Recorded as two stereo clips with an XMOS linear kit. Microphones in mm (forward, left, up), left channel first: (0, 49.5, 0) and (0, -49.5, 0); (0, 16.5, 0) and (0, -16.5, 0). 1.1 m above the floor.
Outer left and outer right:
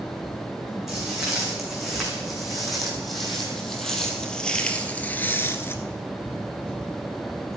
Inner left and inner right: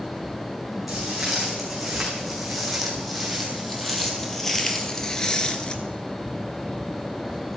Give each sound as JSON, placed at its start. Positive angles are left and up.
{"t": 0.9, "sound": "footsteps", "side_deg": -5, "distance_m": 6.0}